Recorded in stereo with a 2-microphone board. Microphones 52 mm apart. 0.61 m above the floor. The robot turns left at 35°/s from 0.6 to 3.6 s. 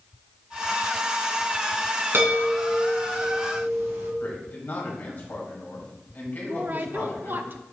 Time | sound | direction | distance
2.1 | a chime | 50° right | 3.5 m
4.2 | a man speaking | 35° left (ahead or behind) | 4 m
6.4 | a woman speaking | 45° right (ahead or behind) | 0.8 m